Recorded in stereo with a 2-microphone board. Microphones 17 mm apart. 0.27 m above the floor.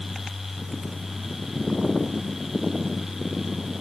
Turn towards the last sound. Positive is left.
No sound to turn to.